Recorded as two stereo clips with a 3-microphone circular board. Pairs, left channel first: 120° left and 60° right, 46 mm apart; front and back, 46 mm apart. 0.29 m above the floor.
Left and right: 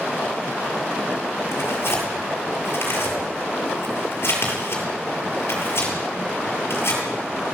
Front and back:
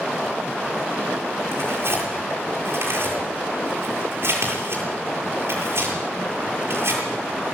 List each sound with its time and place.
1.5 s tearing paper: 150° left, 8 m